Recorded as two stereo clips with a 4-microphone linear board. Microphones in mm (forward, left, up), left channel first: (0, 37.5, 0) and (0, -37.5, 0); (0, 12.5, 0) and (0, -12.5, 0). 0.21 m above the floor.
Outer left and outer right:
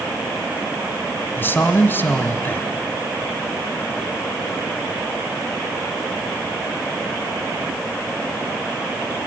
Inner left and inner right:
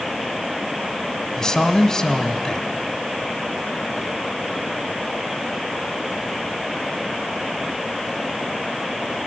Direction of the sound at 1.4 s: 30° left (ahead or behind).